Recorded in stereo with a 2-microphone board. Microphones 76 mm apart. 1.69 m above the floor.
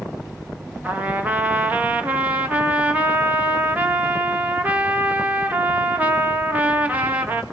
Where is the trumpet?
20° right (ahead or behind), 1.9 m.